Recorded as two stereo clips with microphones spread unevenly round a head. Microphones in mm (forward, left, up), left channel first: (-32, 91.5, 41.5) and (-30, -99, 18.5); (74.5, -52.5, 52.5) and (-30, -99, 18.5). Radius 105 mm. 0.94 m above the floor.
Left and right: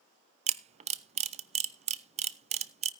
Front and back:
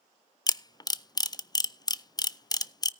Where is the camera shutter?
40° right, 0.6 m.